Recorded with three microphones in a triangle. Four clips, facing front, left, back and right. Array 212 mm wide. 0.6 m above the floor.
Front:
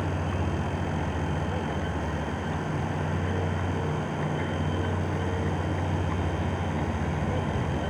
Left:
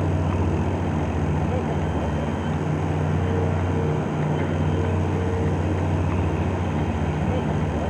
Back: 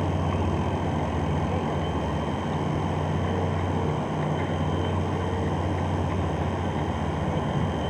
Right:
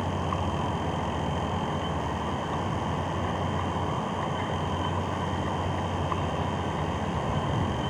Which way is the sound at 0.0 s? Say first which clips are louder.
Left 4 dB, back 3 dB; 105° left.